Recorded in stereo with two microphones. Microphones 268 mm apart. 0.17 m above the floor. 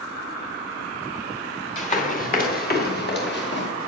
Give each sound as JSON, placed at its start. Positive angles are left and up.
{"t": 1.8, "sound": "running footsteps", "side_deg": 25, "distance_m": 2.5}